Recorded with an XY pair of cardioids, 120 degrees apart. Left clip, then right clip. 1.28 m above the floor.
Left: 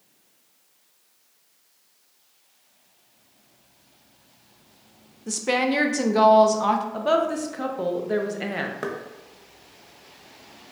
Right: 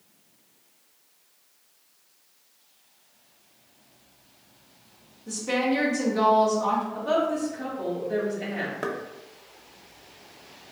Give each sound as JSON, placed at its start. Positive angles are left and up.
{"t": 5.3, "sound": "a woman speaking", "azimuth_deg": 60, "distance_m": 0.6}
{"t": 6.9, "sound": "a woman speaking", "azimuth_deg": 65, "distance_m": 0.7}
{"t": 8.8, "sound": "knocking", "azimuth_deg": 10, "distance_m": 0.7}